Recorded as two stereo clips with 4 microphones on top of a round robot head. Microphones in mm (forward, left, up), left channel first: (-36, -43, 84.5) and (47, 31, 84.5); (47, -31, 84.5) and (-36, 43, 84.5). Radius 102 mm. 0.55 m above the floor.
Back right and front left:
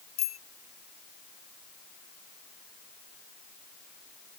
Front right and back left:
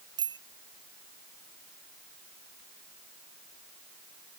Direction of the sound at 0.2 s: 170° right.